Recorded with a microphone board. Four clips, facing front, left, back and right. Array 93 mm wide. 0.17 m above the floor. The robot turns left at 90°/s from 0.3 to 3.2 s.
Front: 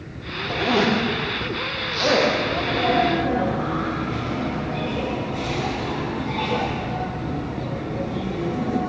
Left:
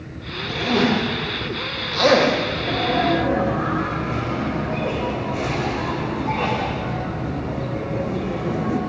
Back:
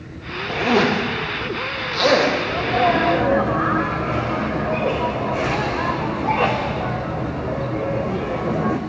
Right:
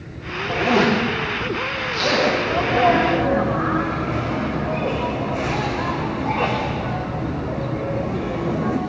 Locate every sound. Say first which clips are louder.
0.5 s a zipper: right 2 dB, back 2 dB; 140° right, 10 m; by 2.3 s 55° left, 10 m
2.5 s a sneeze: right 6 dB, back 3 dB; 80° right, 8 m; by 8.8 s 145° right, 8 m